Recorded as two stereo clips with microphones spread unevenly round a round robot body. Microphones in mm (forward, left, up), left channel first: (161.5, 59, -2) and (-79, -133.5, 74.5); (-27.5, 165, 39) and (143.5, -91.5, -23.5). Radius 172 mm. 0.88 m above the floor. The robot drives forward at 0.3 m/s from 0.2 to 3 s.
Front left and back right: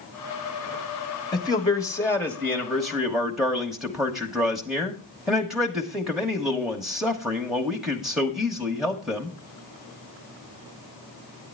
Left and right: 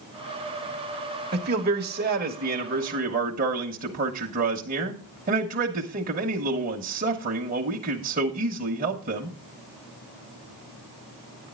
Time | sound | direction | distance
1.3 | a man speaking | 25° right | 1.5 m